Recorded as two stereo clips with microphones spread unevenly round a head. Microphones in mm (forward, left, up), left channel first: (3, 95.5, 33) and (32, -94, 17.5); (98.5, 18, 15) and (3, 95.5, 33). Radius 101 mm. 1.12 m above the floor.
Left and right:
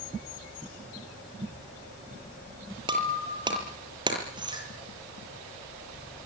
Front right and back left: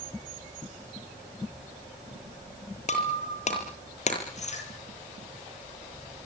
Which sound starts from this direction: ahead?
Breaking glass, at 2.9 s.